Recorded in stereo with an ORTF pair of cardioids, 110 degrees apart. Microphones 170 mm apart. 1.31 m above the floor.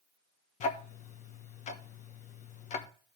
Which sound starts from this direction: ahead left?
Ticking, at 0.6 s.